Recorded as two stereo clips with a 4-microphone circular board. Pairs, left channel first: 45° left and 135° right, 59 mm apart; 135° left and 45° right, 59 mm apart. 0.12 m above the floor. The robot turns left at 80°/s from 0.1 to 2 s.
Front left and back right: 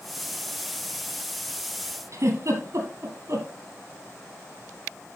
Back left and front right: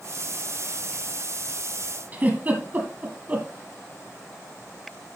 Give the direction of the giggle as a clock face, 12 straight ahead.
3 o'clock.